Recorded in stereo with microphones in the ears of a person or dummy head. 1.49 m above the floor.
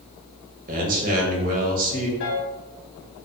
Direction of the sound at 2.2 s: 60° left (ahead or behind).